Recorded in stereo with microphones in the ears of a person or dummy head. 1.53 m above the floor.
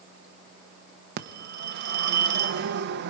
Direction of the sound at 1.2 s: 60° right (ahead or behind).